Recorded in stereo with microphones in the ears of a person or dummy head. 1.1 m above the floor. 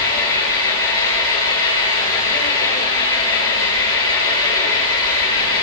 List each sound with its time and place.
0.0 s an engine running: 20° left (ahead or behind), 8.5 m